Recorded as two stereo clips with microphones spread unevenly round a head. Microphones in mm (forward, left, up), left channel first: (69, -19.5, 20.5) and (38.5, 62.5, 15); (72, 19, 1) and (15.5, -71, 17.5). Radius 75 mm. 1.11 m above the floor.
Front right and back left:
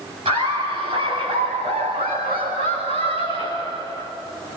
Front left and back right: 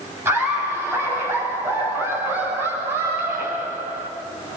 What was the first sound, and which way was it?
Laughter, 160° left.